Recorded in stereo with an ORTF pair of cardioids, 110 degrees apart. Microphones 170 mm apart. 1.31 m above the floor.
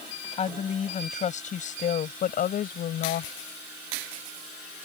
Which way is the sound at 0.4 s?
40° left.